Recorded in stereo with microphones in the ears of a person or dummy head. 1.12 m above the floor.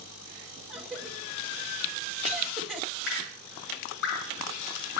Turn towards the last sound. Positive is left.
turn(degrees=65)  # may be behind; listen again after turning